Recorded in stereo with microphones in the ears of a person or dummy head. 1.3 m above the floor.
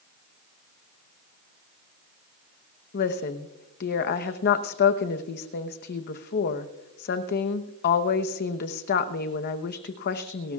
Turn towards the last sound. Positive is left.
turn(degrees=50)  # may be behind; listen again after turning